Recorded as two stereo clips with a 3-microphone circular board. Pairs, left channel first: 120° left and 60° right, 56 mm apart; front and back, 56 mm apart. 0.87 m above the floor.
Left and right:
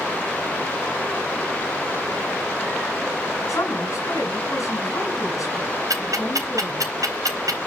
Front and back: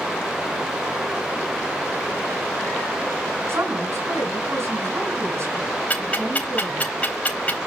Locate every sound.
3.5 s a woman speaking: 145° left, 6.5 m
5.9 s ticking: 65° right, 4 m